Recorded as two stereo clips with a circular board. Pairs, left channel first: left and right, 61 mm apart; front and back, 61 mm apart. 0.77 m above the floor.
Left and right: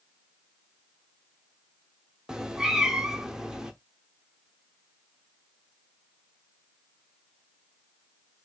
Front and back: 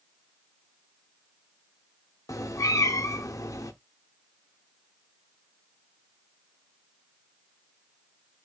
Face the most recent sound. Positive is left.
turn(degrees=-10)